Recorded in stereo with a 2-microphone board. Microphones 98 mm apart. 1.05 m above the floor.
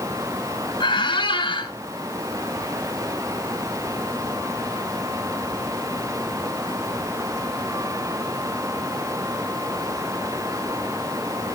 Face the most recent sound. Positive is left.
turn(degrees=55)  # may be behind; listen again after turning